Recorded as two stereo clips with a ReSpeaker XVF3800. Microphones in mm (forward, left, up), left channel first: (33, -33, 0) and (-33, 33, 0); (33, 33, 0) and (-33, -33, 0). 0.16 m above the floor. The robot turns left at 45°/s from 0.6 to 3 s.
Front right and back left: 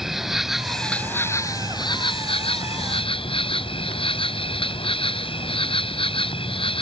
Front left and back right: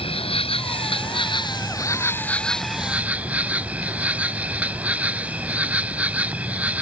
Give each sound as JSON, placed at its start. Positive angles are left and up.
{"t": 0.0, "sound": "an insect", "azimuth_deg": 50}